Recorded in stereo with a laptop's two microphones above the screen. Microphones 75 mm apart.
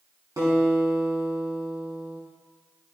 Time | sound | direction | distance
0.4 | a guitar | 45° right (ahead or behind) | 5 m